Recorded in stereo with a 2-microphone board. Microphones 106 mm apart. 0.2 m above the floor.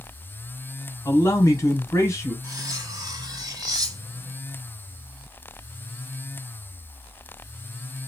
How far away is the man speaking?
About 1.1 m.